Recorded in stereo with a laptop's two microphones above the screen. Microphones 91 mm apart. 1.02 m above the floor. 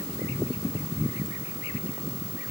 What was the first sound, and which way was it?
Only background noise.